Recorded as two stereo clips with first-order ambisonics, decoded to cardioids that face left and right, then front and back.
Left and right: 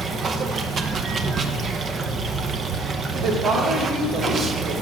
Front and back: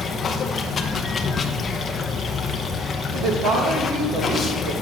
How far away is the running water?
About 0.8 m.